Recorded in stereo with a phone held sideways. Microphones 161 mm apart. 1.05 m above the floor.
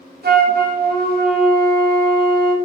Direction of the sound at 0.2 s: 80° right.